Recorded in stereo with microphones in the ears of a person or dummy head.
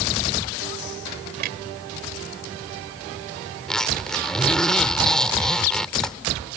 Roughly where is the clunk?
Right.